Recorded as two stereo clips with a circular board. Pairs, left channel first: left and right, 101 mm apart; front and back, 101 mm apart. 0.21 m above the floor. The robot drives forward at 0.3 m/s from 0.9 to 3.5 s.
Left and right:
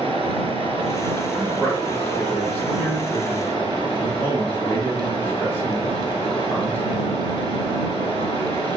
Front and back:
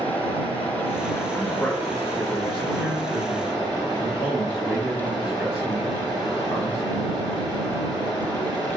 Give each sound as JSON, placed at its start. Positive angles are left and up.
{"t": 0.0, "sound": "running water", "azimuth_deg": 75, "distance_m": 2.5}
{"t": 1.3, "sound": "a man speaking", "azimuth_deg": 45, "distance_m": 1.4}